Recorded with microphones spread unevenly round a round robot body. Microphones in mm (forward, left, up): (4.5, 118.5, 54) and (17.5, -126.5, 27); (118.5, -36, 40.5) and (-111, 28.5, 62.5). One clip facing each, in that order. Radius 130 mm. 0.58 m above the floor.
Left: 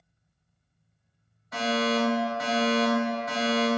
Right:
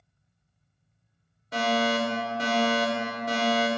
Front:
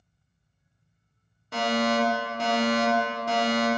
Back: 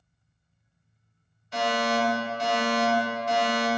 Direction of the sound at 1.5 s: 35° right.